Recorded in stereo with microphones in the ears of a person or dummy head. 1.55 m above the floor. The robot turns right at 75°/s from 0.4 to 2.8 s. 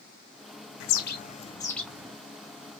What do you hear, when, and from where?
0.8 s a bird: 105° left, 0.6 m; by 2.2 s 155° right, 0.6 m